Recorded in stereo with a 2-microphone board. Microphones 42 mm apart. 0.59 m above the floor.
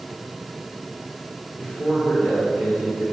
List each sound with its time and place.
1.6 s a man speaking: 50° left (ahead or behind), 1.9 m